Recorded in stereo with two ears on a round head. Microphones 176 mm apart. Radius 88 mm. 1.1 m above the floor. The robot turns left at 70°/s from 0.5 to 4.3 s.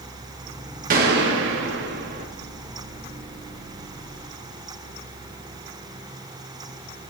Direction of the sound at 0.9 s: 50° right.